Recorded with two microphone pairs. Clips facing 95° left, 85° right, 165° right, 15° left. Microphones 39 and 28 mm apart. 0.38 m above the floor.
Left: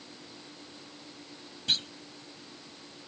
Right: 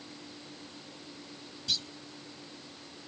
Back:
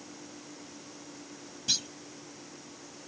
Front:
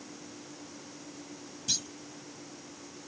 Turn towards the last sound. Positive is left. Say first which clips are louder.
# left 4 dB, back 3 dB
turn(degrees=130)